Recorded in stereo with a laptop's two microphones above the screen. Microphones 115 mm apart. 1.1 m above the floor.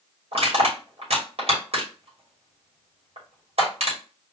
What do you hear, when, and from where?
0.3 s crushing: 70° right (ahead or behind), 3 m